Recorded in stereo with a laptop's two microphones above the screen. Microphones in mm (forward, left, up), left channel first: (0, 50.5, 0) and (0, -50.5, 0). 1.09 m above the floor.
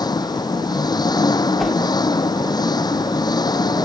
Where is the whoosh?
Centre (ahead or behind).